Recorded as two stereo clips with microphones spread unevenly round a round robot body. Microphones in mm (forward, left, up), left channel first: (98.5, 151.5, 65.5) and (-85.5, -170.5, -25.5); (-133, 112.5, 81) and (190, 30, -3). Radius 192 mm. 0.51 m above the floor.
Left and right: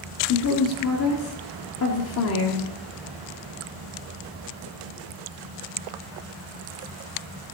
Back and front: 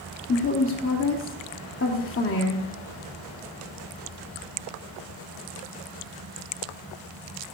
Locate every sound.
0.3 s a woman speaking: 110° left, 1.6 m